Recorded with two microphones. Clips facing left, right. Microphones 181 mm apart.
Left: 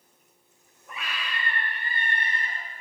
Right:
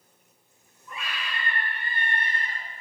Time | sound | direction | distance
0.9 | a scream | 55° left (ahead or behind) | 4 m